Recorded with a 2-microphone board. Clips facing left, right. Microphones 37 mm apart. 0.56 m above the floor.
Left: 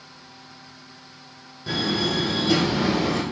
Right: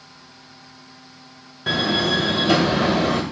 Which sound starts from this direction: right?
A door slam, at 1.7 s.